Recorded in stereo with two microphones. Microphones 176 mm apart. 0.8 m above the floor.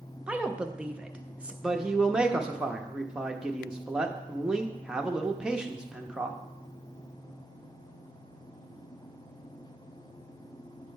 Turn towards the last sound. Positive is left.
turn(degrees=-5)  # may be behind; listen again after turning